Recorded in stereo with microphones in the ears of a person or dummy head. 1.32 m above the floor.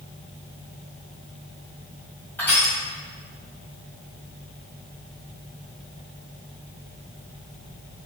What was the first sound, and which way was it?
Crushing, 10° left (ahead or behind).